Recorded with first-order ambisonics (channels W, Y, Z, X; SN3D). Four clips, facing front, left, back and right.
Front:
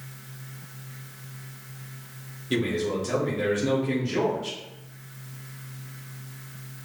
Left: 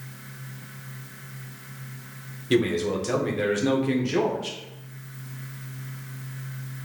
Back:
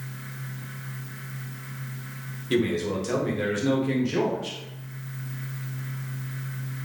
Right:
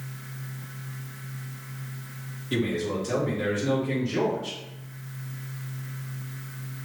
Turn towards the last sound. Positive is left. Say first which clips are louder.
# left 4 dB, back 1 dB
turn(degrees=100)